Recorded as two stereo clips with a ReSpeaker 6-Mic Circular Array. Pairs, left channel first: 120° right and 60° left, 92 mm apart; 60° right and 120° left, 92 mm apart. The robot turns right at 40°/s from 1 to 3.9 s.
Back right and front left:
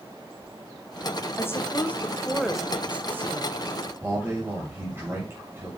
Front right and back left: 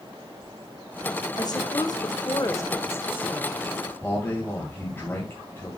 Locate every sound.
1.4 s a woman speaking: 70° right, 1.1 m; by 3.7 s 20° left, 1.1 m
4.0 s a man speaking: 5° left, 2 m